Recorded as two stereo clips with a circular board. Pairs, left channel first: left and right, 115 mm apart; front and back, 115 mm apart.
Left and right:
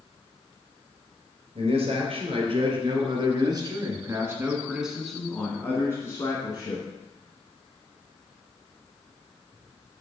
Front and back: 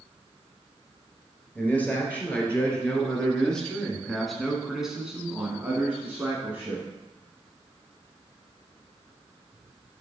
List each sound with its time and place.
1.6 s a man speaking: 75° right, 2.5 m; by 6.8 s 110° left, 1.7 m